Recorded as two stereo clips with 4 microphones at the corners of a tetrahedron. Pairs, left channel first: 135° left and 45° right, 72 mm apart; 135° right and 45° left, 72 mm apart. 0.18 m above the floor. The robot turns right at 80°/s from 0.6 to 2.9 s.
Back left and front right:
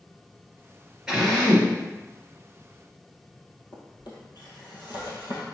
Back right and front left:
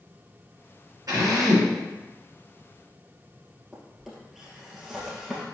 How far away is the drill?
About 2.5 m.